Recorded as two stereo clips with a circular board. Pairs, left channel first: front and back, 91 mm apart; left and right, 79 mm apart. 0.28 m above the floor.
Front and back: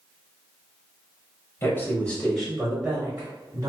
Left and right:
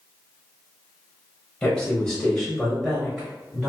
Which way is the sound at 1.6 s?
25° left.